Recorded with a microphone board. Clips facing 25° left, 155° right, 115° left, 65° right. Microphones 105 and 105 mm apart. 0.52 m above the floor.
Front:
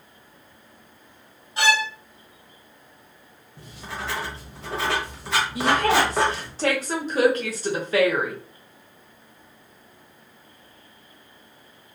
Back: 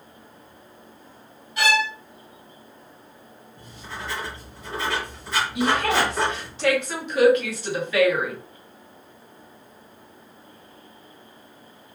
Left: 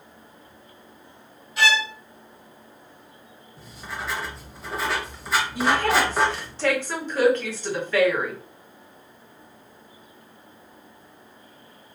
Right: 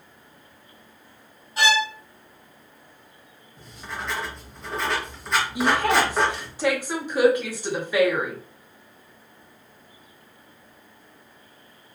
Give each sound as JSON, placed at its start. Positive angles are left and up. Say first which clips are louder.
{"t": 1.6, "sound": "a violin", "louder": "even, right 1 dB", "azimuth_deg": -25, "distance_m": 1.9}
{"t": 3.6, "sound": "writing", "louder": "front 2 dB, even", "azimuth_deg": 25, "distance_m": 0.7}
{"t": 5.5, "sound": "a woman speaking", "louder": "front 2 dB, right 1 dB", "azimuth_deg": 5, "distance_m": 1.0}